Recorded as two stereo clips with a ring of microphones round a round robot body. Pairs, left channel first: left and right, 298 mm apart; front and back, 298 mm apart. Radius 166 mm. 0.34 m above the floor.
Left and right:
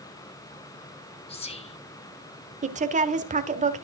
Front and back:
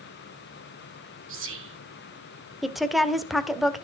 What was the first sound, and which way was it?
Whispering, 155° left.